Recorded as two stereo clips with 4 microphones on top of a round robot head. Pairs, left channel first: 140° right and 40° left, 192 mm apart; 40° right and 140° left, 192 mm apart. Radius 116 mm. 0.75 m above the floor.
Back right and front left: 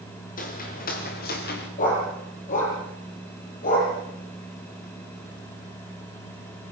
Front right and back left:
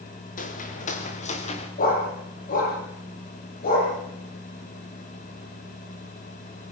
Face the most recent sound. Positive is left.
turn(degrees=-85)